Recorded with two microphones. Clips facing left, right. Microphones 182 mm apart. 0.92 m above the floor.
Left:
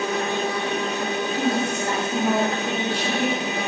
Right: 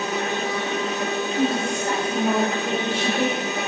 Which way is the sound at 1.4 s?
25° right (ahead or behind).